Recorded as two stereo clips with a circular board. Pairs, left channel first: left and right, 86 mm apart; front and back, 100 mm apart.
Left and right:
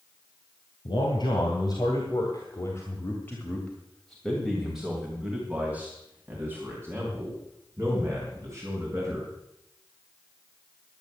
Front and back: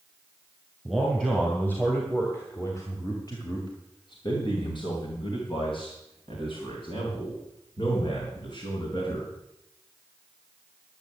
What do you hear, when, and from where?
0.8 s a man speaking: 80° left, 3 m; by 9.3 s 40° right, 5.5 m